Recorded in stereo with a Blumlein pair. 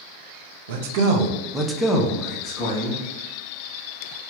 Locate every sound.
0.7 s a man speaking: 55° right, 0.6 m; by 3.0 s 50° left, 0.9 m